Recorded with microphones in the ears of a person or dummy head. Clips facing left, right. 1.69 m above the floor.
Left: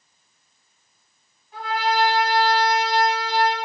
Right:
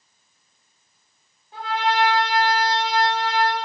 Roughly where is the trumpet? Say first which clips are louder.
Even; right.